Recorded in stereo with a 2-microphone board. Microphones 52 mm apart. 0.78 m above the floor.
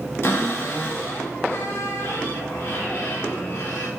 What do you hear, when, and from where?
0.2 s a cupboard door: 45° left (ahead or behind), 1.0 m